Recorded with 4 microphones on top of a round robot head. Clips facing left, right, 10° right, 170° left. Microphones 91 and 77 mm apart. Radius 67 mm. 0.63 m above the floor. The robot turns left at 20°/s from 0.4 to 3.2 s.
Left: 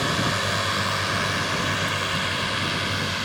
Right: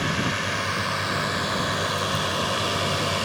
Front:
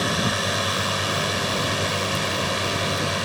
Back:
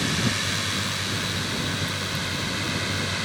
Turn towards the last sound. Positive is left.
turn(degrees=-45)